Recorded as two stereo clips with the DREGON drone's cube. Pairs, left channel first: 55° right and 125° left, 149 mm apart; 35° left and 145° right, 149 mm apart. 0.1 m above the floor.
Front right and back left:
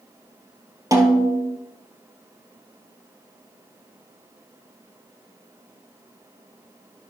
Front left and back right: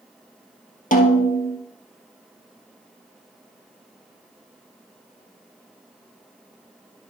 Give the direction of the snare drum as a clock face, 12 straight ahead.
10 o'clock.